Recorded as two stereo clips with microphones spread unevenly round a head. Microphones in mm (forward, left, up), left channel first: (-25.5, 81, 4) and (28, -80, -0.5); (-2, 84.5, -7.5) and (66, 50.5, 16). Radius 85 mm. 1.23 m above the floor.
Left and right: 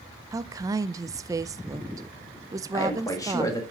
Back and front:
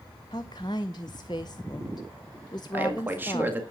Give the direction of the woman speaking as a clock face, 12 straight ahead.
5 o'clock.